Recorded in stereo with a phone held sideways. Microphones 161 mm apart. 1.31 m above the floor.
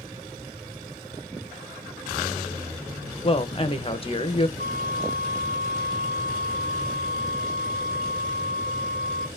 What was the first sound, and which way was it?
A woman speaking, 35° left (ahead or behind).